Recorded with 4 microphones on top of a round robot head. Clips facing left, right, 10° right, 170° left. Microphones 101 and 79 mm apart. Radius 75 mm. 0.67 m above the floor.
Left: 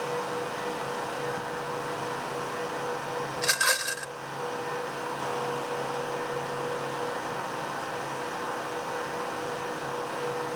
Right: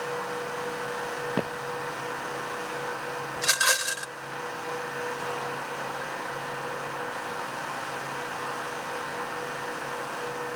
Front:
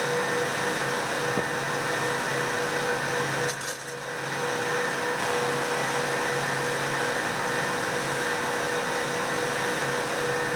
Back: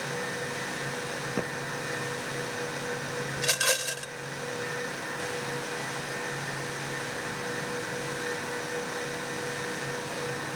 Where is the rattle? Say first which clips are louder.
Right 2 dB, back 1 dB; 175° right.